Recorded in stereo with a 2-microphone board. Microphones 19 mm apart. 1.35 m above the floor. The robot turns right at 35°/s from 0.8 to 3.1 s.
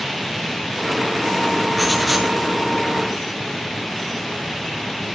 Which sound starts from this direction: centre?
Writing, at 1.8 s.